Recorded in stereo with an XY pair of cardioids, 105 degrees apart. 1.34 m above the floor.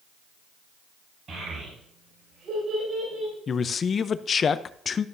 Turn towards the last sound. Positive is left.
turn(degrees=45)